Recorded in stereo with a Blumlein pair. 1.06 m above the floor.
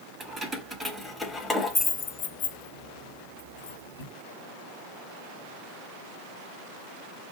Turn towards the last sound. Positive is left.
turn(degrees=80)